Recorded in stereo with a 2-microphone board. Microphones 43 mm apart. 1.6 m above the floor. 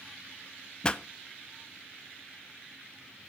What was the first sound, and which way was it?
A pop, 20° left (ahead or behind).